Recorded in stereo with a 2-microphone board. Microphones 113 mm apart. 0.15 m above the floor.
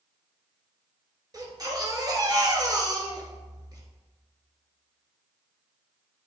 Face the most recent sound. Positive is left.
turn(degrees=-35)  # may be behind; listen again after turning